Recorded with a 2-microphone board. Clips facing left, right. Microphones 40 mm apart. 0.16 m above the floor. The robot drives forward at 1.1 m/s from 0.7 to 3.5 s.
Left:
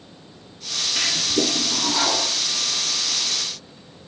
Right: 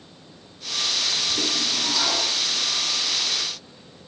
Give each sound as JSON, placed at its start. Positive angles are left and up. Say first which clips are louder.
{"t": 1.0, "sound": "a toilet flushing", "louder": "left 6 dB", "side_deg": 80, "distance_m": 0.5}